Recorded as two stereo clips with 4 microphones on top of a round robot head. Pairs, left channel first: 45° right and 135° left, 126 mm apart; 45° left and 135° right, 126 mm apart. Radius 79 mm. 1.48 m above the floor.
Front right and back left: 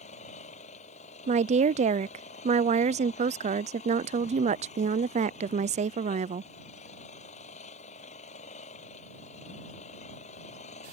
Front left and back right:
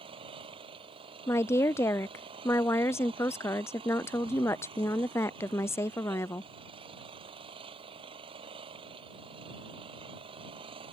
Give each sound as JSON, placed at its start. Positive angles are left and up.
{"t": 0.0, "sound": "an engine running", "azimuth_deg": -85}
{"t": 1.3, "sound": "a woman speaking", "azimuth_deg": 115}